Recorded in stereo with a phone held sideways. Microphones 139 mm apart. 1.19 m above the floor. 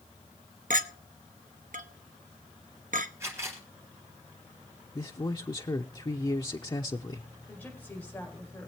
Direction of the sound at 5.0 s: 30° left (ahead or behind).